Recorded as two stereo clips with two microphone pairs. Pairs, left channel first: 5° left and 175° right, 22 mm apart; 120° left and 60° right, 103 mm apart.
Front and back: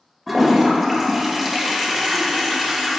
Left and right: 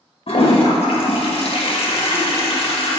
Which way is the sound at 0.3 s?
100° left.